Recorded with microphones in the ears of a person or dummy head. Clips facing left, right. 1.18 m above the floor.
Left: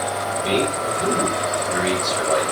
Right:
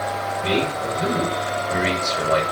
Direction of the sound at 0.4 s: 5° right (ahead or behind).